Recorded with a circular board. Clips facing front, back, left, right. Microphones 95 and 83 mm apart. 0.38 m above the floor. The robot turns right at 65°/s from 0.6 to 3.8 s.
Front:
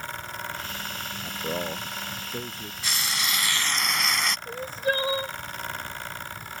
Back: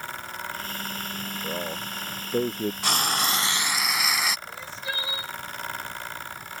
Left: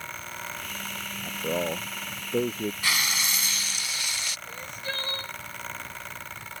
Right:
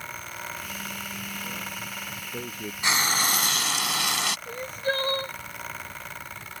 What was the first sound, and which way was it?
A man speaking, 65° left.